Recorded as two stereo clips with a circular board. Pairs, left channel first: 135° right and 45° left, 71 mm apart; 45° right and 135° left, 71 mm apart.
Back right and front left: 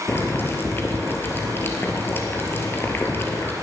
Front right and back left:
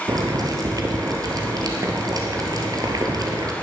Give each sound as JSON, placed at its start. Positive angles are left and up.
{"t": 0.1, "sound": "boiling", "azimuth_deg": 165, "distance_m": 1.9}